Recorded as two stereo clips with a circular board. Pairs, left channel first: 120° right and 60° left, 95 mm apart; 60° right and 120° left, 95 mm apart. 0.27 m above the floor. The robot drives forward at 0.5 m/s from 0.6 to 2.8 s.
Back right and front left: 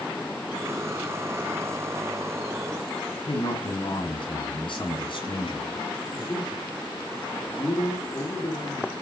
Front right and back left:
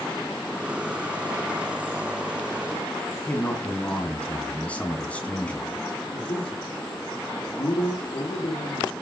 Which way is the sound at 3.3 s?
135° right.